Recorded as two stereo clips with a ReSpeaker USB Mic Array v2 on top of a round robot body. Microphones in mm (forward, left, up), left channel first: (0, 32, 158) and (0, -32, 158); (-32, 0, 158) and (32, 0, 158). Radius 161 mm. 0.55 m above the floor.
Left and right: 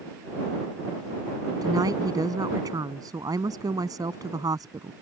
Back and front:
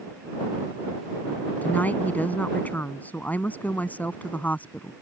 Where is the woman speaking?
115° right.